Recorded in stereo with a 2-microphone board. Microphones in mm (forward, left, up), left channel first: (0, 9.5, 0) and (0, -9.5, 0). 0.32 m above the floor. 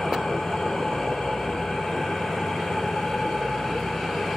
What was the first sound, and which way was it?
An engine running, 80° left.